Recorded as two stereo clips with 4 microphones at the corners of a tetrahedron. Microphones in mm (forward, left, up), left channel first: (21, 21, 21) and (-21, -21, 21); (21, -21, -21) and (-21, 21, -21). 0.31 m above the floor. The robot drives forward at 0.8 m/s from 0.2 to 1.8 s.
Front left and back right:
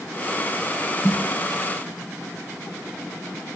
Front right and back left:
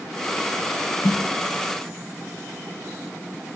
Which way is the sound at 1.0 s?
50° right.